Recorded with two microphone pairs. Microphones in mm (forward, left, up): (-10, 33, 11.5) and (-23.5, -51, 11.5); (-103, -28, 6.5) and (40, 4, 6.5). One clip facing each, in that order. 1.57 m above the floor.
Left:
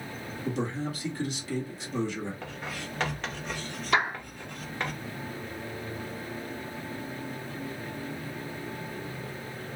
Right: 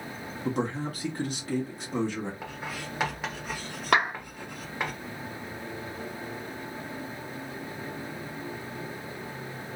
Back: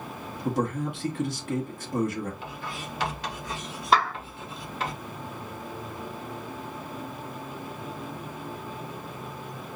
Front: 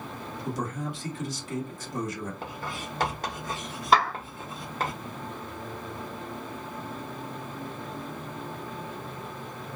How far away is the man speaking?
About 1.4 m.